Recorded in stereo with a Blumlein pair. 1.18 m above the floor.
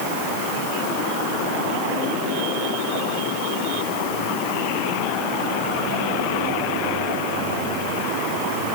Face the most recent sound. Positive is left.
No sound to turn to.